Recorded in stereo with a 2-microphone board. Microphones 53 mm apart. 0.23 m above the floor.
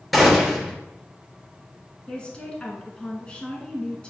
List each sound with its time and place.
0.1 s a gunshot: centre (ahead or behind), 3 m
2.1 s a woman speaking: 20° left (ahead or behind), 2 m